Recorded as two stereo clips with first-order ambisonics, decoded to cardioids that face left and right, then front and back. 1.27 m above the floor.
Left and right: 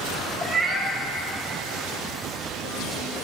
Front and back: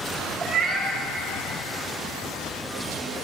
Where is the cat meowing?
160° right, 0.8 m.